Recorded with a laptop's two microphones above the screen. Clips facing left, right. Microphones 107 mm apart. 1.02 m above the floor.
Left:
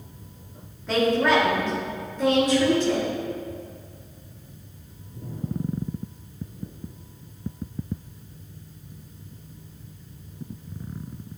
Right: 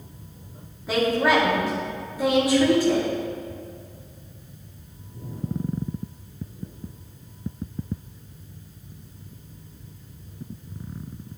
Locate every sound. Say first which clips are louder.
0.9 s a woman speaking: even; 10° right (ahead or behind), 2 m